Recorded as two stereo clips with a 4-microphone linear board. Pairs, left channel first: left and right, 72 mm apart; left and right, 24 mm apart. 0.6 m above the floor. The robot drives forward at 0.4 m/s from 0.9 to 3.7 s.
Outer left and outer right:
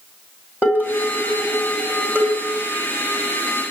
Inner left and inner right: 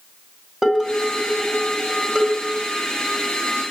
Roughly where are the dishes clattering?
Right.